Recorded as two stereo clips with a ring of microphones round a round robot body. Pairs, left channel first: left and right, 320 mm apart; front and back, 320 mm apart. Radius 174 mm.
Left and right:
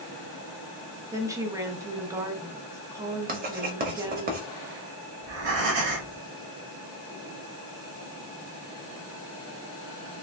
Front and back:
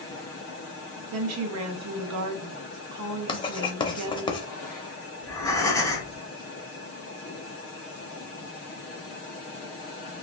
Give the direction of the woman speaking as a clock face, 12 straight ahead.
6 o'clock.